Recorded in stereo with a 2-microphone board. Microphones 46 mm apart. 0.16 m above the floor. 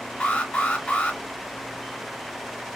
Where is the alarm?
30° left (ahead or behind), 1.9 m.